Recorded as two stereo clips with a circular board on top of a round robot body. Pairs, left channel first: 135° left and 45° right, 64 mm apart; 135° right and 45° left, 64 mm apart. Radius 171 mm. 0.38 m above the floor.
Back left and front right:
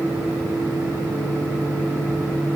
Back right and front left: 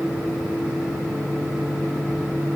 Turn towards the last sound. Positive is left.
No sound to turn to.